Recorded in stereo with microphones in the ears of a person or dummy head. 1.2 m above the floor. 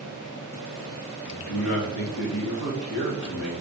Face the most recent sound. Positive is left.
turn(degrees=75)  # may be behind; listen again after turning